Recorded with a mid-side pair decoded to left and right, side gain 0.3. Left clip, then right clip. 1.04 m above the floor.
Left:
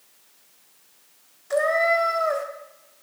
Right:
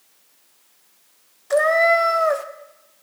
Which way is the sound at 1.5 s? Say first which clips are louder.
Right 5 dB; 60° right.